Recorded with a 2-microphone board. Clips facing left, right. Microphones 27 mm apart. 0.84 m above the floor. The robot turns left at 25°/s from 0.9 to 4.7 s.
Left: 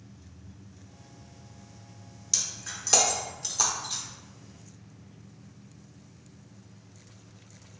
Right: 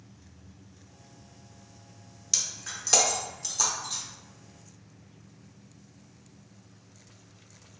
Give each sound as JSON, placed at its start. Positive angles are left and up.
{"t": 2.3, "sound": "breaking glass", "side_deg": -10, "distance_m": 0.7}